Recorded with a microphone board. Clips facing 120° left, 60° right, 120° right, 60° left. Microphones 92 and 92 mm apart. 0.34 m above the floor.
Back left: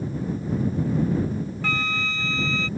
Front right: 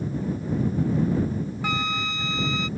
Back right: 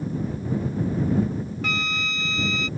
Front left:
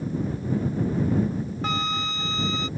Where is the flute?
10° left.